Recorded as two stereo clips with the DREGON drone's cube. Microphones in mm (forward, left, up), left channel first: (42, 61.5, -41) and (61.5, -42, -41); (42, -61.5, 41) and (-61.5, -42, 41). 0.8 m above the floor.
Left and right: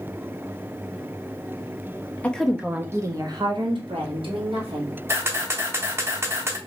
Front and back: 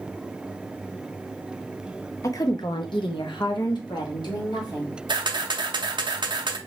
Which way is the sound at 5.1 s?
145° right.